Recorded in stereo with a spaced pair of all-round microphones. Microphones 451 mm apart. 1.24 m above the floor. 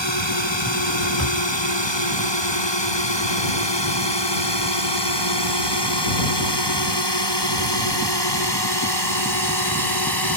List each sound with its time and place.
0.0 s a drone: 70° left (ahead or behind); by 10.4 s 55° left (ahead or behind)
1.2 s a drawer: 35° left (ahead or behind)